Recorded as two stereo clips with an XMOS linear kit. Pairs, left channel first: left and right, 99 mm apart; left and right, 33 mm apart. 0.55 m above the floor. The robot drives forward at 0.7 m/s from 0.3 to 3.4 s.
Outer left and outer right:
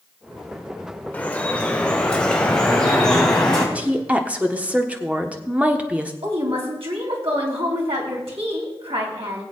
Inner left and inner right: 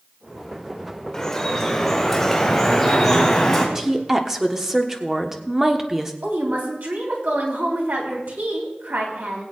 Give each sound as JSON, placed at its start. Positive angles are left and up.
{"t": 1.1, "sound": "dripping", "side_deg": 15, "distance_m": 1.0}
{"t": 3.8, "sound": "a woman speaking", "side_deg": -15, "distance_m": 1.2}
{"t": 6.2, "sound": "a woman speaking", "side_deg": -75, "distance_m": 3.0}